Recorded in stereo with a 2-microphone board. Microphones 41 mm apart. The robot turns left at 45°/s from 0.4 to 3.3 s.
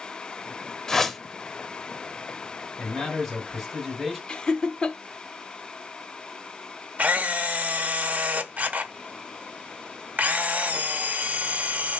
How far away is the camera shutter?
About 0.6 m.